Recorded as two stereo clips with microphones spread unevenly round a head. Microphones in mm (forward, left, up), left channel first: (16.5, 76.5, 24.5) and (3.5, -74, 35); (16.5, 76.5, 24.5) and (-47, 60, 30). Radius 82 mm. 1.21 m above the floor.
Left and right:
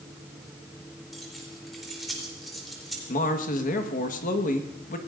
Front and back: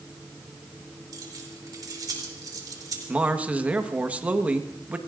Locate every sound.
1.1 s keys jangling: 175° left, 3.5 m
3.1 s a man speaking: 125° left, 1.5 m